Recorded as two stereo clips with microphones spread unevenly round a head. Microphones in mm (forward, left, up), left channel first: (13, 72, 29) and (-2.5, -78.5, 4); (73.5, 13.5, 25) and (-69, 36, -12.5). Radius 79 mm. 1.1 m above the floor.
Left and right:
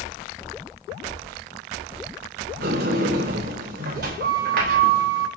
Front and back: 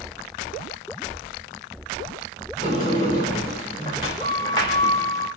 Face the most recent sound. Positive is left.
turn(degrees=-75)